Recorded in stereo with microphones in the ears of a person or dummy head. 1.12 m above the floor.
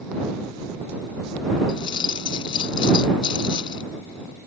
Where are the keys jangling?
25° left (ahead or behind).